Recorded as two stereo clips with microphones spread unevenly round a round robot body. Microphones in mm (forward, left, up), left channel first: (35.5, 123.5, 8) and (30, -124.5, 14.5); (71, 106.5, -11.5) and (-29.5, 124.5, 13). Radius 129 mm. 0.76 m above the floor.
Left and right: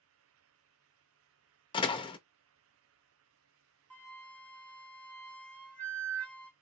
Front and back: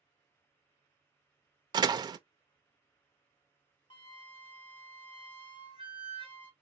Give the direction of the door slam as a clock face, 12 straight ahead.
7 o'clock.